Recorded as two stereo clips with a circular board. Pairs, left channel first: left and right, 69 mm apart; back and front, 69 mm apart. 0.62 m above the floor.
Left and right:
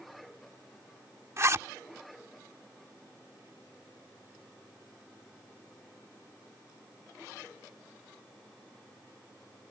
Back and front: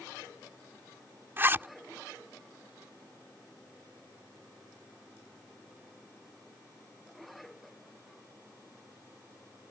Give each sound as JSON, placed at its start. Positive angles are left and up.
{"t": 1.4, "sound": "a zipper", "azimuth_deg": -50}